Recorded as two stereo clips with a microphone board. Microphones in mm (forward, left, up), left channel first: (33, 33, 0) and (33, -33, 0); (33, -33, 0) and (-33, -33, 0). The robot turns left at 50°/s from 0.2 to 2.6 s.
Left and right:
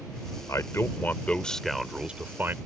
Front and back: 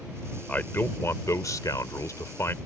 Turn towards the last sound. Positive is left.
turn(degrees=-45)